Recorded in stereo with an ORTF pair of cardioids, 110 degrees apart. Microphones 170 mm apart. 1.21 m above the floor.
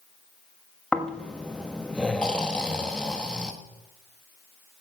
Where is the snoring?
5° left, 1.5 m.